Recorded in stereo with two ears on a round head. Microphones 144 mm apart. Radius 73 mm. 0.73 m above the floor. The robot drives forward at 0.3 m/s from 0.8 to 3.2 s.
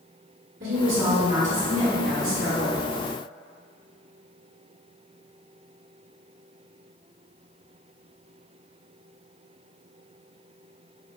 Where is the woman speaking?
45° right (ahead or behind), 1.9 m; by 2.8 s 55° right (ahead or behind), 1.7 m.